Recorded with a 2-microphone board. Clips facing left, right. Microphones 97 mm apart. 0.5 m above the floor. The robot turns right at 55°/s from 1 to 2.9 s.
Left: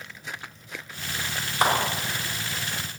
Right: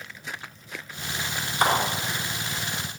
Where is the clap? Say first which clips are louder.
Even; 10° left (ahead or behind), 4 m; by 1.7 s 5° left (ahead or behind), 4 m.